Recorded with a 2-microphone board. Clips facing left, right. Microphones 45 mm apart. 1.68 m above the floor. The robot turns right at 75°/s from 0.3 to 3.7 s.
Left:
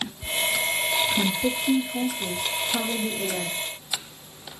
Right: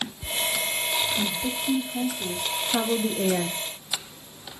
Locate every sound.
1.1 s a woman speaking: 95° left, 0.7 m; by 3.6 s 75° right, 0.7 m